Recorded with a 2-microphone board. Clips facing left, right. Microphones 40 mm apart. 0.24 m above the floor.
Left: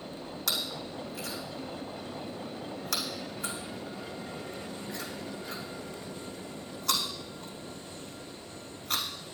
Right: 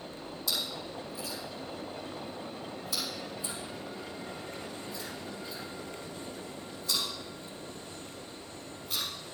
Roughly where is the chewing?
Left.